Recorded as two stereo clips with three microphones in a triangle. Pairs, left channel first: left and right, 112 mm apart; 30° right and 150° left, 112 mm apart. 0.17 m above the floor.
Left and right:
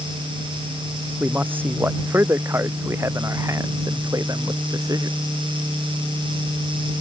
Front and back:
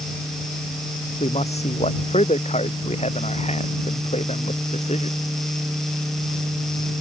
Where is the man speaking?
15° right; by 5.2 s 35° right.